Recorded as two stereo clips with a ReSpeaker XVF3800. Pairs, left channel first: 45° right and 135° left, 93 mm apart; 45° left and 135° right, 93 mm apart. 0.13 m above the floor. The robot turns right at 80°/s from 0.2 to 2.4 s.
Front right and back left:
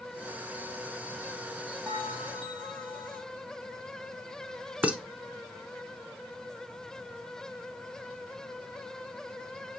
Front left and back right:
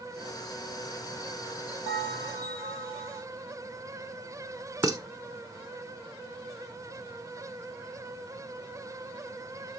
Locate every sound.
1.9 s a bell: 125° right, 3 m; by 3.2 s 80° right, 3 m
4.8 s dishes clattering: 155° right, 1.0 m